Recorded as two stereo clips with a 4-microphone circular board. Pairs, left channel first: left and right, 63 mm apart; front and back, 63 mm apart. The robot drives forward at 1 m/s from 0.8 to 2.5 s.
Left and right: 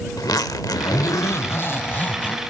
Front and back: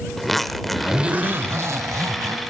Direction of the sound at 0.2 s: 90° left.